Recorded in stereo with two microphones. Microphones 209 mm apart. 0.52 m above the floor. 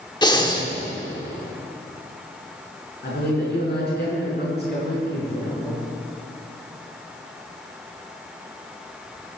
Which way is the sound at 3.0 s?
50° left (ahead or behind).